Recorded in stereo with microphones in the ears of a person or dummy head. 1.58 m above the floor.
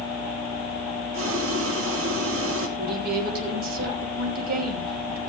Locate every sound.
1.1 s boiling: 80° right, 1.9 m
2.8 s a woman speaking: 55° right (ahead or behind), 3 m